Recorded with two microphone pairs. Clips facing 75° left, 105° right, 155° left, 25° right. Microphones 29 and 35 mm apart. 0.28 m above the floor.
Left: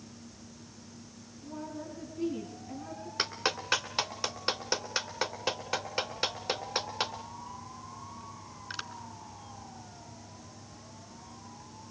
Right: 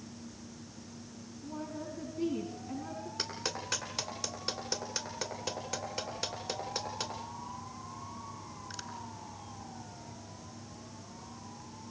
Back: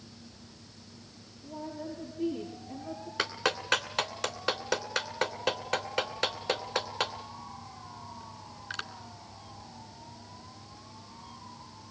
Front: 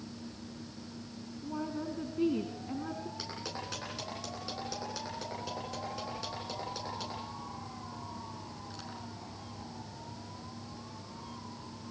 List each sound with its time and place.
1.4 s a woman speaking: 15° right, 3 m
3.2 s a clap: 130° left, 2.5 m